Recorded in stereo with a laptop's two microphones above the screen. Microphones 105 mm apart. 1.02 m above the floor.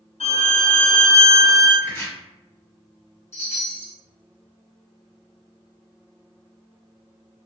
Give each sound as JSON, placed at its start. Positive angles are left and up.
{"t": 0.2, "sound": "a violin", "side_deg": 65, "distance_m": 0.9}
{"t": 1.8, "sound": "chopping", "side_deg": 25, "distance_m": 1.4}
{"t": 3.3, "sound": "a chime", "side_deg": 85, "distance_m": 1.2}